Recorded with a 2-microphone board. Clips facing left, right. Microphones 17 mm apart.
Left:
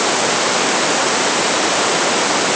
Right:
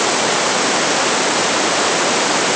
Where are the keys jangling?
I don't hear keys jangling.